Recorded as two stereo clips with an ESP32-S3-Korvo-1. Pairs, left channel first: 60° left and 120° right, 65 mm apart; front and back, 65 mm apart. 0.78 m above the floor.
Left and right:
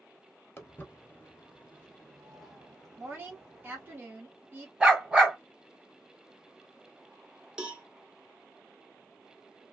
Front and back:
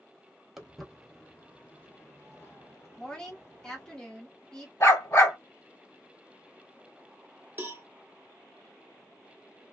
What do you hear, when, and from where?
0.6 s footsteps: 100° left, 0.9 m; by 4.0 s 40° right, 1.7 m
3.0 s a woman speaking: 75° right, 1.2 m
4.8 s a dog barking: 40° right, 1.7 m
7.6 s a cowbell: 170° left, 0.8 m